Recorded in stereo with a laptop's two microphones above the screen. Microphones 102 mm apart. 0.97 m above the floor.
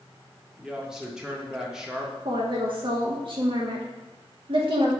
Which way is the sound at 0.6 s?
5° right (ahead or behind).